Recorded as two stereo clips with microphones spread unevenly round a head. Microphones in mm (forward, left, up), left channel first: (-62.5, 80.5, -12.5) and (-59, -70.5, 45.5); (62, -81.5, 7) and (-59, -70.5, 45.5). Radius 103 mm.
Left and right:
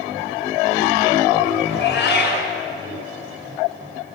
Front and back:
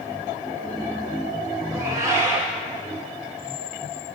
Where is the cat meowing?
105° left, 3.5 m.